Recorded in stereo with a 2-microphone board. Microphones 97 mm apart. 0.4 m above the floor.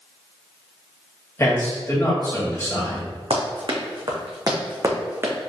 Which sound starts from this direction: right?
Running footsteps, at 3.3 s.